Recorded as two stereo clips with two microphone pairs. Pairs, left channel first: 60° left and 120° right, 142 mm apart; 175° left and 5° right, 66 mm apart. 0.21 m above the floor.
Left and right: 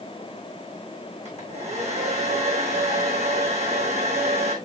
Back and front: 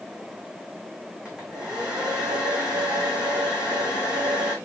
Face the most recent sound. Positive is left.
turn(degrees=-80)